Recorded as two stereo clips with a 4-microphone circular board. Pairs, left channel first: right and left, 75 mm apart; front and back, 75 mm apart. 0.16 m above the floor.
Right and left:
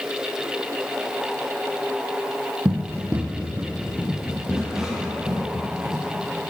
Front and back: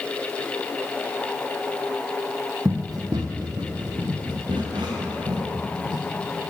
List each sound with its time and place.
2.6 s running footsteps: 140° left, 0.7 m; by 6.0 s 175° left, 3.5 m